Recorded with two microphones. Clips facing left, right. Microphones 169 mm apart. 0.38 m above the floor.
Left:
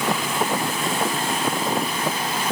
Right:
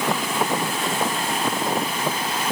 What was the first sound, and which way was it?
Only background noise.